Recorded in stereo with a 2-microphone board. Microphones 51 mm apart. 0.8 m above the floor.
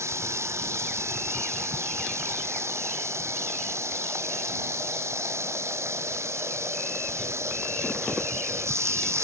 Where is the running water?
65° right (ahead or behind).